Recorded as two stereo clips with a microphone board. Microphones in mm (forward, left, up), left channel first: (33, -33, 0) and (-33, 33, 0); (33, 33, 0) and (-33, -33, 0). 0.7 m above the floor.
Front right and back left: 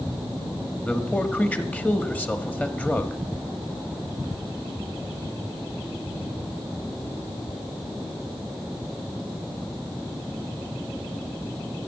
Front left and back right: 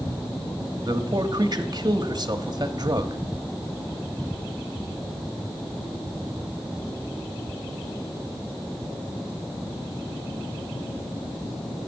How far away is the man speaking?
About 1.2 m.